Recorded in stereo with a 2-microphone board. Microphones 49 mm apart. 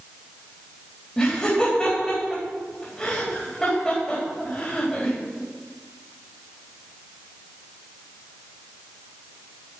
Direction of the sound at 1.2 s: 20° left (ahead or behind).